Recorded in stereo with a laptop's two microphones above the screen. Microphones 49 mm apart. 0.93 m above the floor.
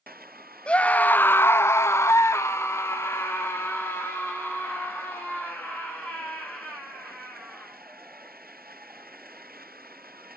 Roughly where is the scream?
Left.